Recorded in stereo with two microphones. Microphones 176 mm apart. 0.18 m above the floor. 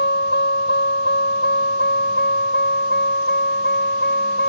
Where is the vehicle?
75° left (ahead or behind); by 4.5 s 80° left.